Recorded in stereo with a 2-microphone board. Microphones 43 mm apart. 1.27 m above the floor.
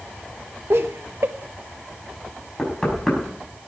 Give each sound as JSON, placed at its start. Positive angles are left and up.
{"t": 0.7, "sound": "laughter", "side_deg": -75, "distance_m": 0.7}
{"t": 2.6, "sound": "knocking", "side_deg": 5, "distance_m": 5.5}